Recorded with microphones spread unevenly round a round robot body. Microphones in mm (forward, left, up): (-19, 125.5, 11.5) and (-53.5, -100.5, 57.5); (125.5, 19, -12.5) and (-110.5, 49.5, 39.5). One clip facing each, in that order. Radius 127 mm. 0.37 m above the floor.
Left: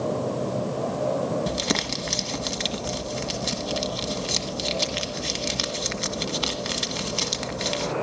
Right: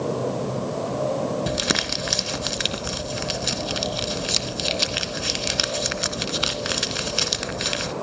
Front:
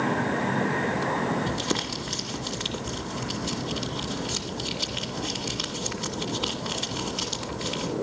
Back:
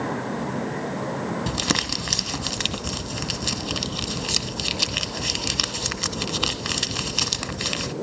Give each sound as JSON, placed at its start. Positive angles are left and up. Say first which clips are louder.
{"t": 1.5, "sound": "crumpling", "louder": "right 1 dB, back 2 dB", "azimuth_deg": -175, "distance_m": 1.3}